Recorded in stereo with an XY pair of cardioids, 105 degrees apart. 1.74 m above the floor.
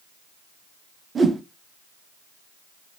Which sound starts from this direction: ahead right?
A whoosh, at 1.1 s.